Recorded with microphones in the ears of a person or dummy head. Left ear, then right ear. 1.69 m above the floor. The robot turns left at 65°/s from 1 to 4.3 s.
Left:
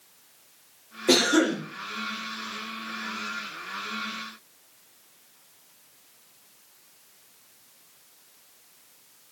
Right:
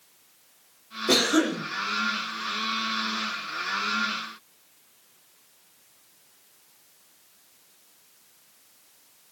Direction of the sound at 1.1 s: 75° left.